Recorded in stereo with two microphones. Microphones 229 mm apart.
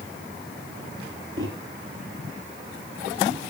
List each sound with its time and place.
1.4 s a microwave: 60° right (ahead or behind), 5 m